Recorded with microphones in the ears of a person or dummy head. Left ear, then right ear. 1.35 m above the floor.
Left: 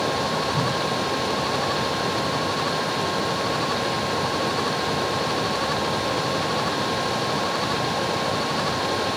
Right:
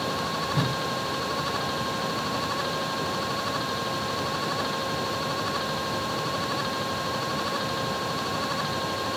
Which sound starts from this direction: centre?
A whoosh, at 0.5 s.